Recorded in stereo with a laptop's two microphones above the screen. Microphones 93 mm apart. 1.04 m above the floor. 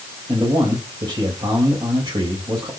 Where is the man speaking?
55° right (ahead or behind), 4 m.